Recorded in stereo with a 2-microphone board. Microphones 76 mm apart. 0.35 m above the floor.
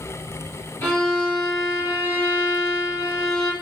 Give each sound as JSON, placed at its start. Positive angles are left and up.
{"t": 0.8, "sound": "a violin", "side_deg": 25, "distance_m": 1.9}